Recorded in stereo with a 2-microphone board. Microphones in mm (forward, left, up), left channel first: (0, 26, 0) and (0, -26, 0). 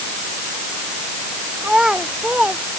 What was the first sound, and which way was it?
A child speaking, 15° right (ahead or behind).